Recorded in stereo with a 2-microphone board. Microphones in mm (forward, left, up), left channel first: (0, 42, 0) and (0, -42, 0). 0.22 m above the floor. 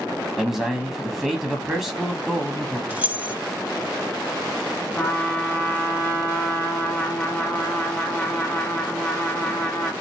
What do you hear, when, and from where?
0.4 s a man speaking: 5° right (ahead or behind), 1.2 m
2.9 s keys jangling: 20° right (ahead or behind), 0.7 m
5.0 s a trumpet: 25° left (ahead or behind), 1.1 m